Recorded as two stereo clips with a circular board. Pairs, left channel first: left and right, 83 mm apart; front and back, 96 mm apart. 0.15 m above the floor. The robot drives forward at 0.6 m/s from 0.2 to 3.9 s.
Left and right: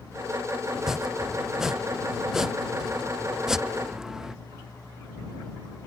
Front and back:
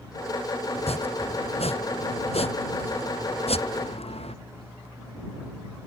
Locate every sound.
0.8 s chopping: 5° right